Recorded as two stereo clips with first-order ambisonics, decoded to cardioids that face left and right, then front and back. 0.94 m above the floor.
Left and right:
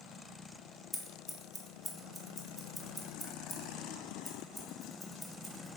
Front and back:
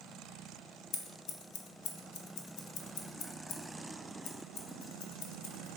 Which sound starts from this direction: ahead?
Scissors, at 0.9 s.